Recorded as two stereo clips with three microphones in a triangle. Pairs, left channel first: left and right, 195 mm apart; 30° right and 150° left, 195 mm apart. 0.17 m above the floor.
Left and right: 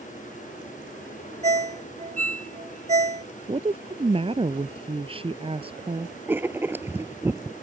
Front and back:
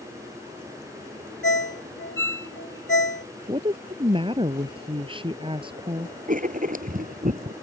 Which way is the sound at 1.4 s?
35° right.